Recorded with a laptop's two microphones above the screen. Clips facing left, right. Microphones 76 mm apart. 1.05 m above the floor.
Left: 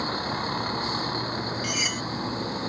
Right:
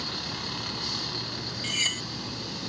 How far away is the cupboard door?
I don't hear a cupboard door.